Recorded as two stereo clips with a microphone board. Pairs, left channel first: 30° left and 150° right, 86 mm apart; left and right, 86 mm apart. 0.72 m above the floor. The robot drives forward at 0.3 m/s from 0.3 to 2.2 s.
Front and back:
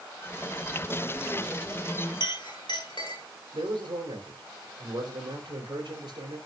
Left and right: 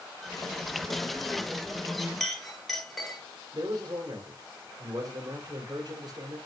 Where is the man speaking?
130° right, 3 m.